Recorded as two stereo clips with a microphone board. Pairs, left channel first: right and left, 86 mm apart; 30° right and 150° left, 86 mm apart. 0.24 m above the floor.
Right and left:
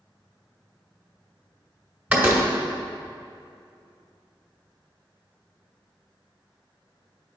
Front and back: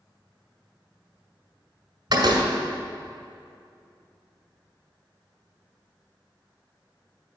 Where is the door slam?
160° left, 1.7 m.